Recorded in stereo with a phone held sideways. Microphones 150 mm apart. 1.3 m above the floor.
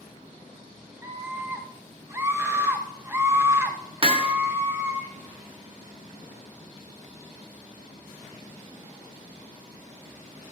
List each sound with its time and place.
1.0 s a scream: 20° right (ahead or behind), 1.3 m
4.0 s hammering: 40° right (ahead or behind), 0.9 m